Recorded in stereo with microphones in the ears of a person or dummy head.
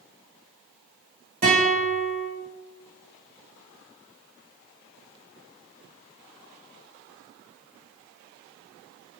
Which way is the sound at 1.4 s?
55° right (ahead or behind).